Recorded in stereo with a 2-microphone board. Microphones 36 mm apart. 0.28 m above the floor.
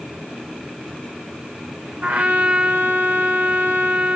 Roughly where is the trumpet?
Right.